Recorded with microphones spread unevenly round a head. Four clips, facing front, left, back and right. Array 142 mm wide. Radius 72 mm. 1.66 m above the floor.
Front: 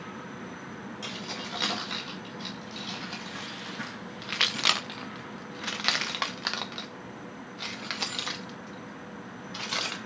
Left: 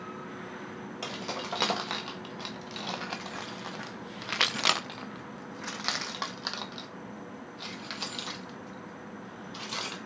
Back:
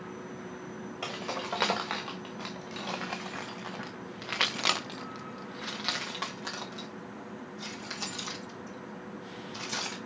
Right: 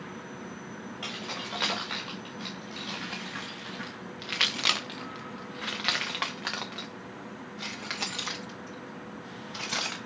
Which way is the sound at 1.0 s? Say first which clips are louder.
Left 3 dB, back 6 dB; 145° left.